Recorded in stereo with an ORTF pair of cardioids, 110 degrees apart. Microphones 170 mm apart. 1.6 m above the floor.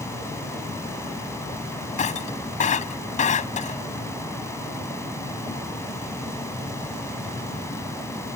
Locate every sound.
0.0 s a fan: 15° left
2.0 s breaking glass: 40° left